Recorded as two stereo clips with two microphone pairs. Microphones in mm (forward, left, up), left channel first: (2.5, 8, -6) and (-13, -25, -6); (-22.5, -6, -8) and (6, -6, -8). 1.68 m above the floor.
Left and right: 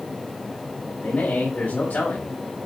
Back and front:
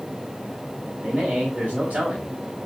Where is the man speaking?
50° left, 4 m.